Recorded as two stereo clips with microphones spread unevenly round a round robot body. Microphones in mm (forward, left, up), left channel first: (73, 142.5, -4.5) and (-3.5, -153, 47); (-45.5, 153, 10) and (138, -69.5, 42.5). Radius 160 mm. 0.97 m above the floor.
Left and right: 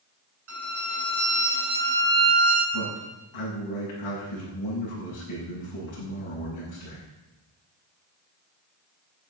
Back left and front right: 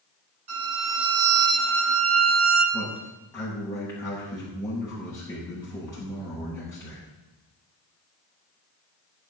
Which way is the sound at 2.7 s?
50° left.